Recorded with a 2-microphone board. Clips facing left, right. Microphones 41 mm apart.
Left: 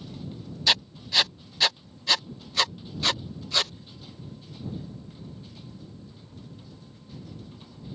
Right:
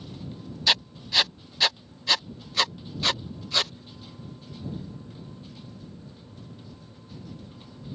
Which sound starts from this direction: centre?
Writing, at 0.7 s.